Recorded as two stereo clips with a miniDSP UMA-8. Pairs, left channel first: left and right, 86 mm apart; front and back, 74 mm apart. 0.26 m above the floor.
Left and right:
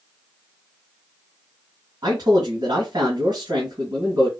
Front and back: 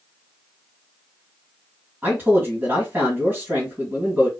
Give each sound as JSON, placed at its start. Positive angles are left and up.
{"t": 2.0, "sound": "a man speaking", "azimuth_deg": -115, "distance_m": 1.9}